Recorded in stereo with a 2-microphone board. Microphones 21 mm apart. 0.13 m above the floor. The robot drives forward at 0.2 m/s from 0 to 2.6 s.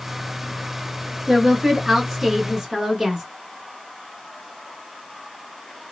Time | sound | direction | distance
1.3 | a woman speaking | 15° right (ahead or behind) | 1.3 m